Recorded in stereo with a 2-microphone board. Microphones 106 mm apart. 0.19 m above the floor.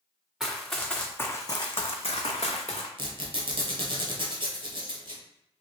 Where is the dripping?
I don't hear dripping.